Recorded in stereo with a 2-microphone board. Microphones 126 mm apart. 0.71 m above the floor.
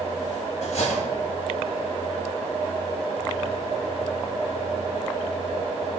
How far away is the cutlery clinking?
About 2.5 m.